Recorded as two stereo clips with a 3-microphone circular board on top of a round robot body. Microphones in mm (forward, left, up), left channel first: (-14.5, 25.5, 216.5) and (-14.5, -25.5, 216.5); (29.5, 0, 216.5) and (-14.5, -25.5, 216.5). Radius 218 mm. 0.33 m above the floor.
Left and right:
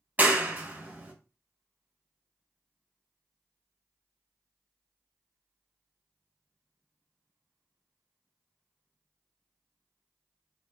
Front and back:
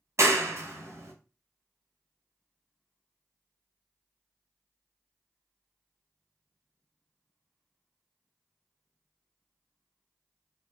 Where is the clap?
145° right, 1.0 m.